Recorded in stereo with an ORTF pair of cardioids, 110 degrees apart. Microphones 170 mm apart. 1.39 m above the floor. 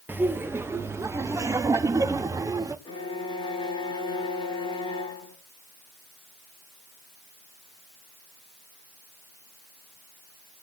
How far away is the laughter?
About 1.3 m.